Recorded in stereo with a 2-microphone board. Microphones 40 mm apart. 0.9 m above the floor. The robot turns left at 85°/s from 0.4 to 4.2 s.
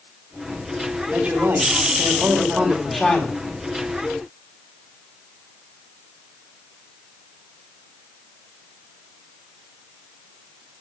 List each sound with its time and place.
1.1 s a man speaking: 30° right, 3.5 m; by 3.4 s 135° left, 3.5 m